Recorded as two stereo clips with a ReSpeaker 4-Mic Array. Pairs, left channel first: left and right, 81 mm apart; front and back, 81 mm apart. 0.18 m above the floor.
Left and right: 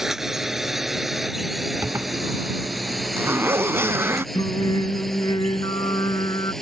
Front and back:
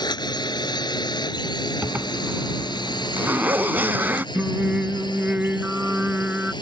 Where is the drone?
5° right; by 6.6 s 5° left.